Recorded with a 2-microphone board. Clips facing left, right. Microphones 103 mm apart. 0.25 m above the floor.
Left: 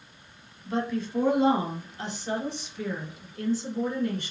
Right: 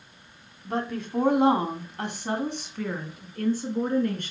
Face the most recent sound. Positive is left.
turn(degrees=-50)  # may be behind; listen again after turning